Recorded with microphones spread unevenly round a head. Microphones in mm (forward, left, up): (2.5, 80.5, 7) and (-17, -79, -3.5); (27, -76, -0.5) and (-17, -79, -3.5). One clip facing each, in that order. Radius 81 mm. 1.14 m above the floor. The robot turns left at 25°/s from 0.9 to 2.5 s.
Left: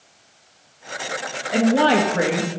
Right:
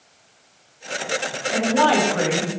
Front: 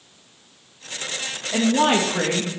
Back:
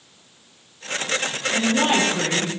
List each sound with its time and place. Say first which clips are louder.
1.5 s a woman speaking: left 2 dB, front 2 dB; 25° left, 1.5 m; by 2.5 s straight ahead, 1.5 m